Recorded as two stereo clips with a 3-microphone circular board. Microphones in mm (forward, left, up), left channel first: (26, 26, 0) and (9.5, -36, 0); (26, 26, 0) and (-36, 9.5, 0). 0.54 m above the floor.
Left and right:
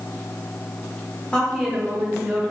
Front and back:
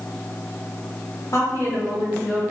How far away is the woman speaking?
About 1.2 m.